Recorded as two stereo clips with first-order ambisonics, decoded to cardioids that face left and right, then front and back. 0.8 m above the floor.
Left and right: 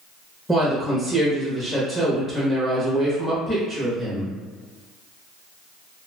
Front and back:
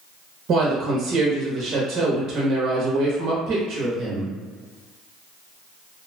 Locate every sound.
0.5 s a woman speaking: 175° left, 0.8 m